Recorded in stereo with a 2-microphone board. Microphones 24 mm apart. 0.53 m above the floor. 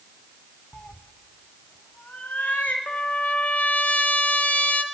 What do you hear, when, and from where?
0.7 s a cat meowing: 40° left (ahead or behind), 0.9 m; by 2.8 s 85° left, 1.9 m
2.9 s a trumpet: 70° left (ahead or behind), 1.0 m